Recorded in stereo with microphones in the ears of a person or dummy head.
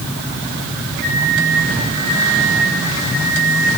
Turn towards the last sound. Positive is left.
turn(degrees=-45)  # may be behind; listen again after turning